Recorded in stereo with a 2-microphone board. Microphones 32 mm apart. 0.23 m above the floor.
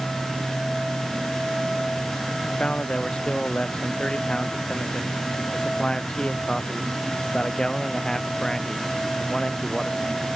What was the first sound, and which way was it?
A man speaking, 35° left (ahead or behind).